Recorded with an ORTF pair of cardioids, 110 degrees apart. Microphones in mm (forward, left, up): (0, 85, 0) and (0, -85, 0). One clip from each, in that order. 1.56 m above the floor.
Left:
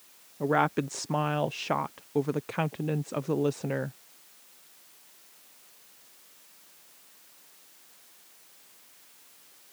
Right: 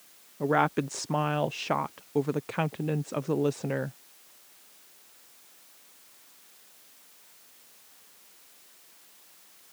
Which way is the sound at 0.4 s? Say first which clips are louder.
Right 1 dB; straight ahead.